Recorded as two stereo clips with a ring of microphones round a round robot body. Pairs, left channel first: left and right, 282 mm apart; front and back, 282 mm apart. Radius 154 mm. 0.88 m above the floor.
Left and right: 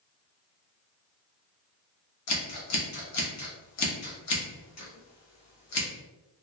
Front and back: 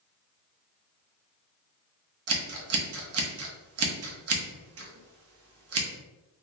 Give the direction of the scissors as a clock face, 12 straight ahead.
7 o'clock.